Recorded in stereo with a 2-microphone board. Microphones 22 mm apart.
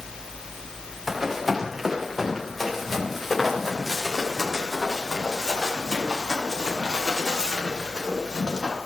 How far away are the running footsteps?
About 4 m.